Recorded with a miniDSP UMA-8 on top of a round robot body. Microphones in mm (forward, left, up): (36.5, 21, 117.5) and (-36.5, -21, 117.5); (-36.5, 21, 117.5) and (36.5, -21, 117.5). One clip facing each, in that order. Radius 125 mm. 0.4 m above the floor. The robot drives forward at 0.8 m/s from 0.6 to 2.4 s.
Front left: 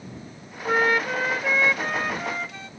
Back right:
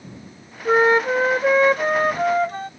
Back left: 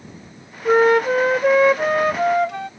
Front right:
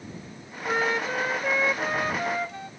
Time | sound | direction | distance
0.7 | a flute | 150° left | ?